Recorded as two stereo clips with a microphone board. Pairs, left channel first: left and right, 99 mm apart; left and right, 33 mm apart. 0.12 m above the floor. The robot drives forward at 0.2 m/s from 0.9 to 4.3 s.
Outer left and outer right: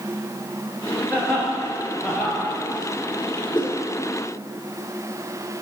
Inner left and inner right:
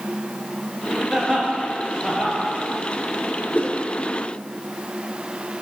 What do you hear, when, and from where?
1.1 s laughter: 15° left (ahead or behind), 2 m
3.5 s a whoosh: 55° left (ahead or behind), 1.5 m